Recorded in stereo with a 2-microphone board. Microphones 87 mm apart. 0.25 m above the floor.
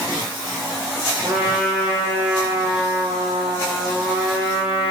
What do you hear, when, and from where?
1.2 s a trumpet: 20° right (ahead or behind), 4 m